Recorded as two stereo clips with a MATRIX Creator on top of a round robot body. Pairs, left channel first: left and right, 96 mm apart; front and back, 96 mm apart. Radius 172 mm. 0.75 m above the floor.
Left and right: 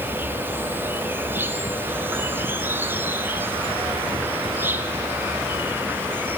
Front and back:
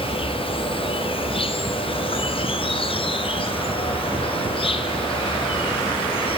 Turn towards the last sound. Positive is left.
turn(degrees=-20)